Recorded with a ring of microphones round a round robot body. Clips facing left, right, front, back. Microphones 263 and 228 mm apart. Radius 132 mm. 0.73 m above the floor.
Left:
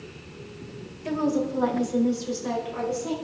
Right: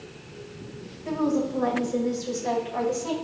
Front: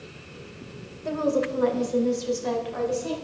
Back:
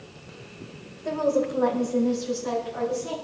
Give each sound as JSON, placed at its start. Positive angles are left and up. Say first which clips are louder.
{"t": 1.1, "sound": "a woman speaking", "louder": "even, back 1 dB", "azimuth_deg": 65, "distance_m": 2.5}